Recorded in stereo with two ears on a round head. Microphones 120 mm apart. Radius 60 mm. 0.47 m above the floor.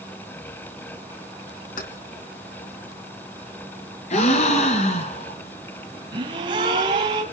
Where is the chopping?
No chopping in this recording.